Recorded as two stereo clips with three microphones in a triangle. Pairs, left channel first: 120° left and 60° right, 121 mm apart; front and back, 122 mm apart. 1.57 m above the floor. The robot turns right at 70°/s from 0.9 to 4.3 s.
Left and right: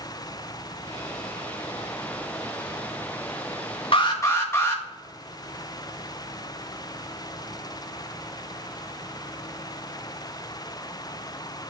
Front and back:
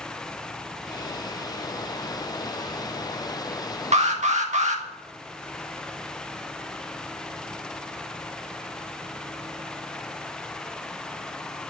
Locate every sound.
3.9 s an alarm: 160° left, 1.8 m; by 4.8 s 170° right, 1.8 m